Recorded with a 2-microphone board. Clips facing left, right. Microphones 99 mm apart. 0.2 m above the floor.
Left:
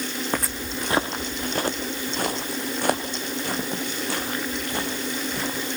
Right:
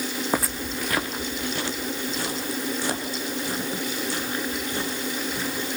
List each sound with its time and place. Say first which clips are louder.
0.3 s footsteps: right 2 dB; 10° right (ahead or behind), 0.9 m; by 5.8 s 65° left (ahead or behind), 8 m